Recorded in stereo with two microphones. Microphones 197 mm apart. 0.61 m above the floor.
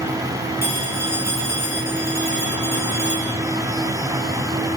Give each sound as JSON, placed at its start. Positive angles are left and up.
{"t": 0.6, "sound": "a phone ringing", "side_deg": -10, "distance_m": 4.5}